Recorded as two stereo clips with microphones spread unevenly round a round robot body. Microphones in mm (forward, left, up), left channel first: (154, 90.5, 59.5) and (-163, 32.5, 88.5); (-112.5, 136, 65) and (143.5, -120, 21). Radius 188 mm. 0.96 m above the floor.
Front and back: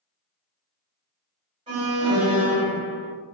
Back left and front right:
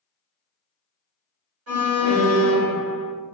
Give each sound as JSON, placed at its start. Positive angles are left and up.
{"t": 1.7, "sound": "an alarm", "azimuth_deg": -95, "distance_m": 1.8}